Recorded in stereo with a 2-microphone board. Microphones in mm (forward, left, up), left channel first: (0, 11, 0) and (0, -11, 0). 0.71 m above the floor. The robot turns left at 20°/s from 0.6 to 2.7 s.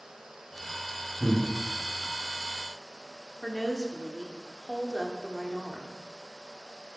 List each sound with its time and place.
1.2 s breathing: 40° right (ahead or behind), 5 m; by 1.4 s 45° right (ahead or behind), 5 m
3.4 s a woman speaking: 15° left (ahead or behind), 1.5 m